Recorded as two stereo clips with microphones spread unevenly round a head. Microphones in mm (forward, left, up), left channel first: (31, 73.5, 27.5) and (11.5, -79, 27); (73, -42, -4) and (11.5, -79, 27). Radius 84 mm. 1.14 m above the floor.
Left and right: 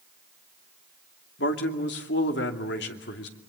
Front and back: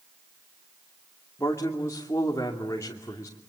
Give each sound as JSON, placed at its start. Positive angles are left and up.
{"t": 1.4, "sound": "a man speaking", "azimuth_deg": 100, "distance_m": 2.5}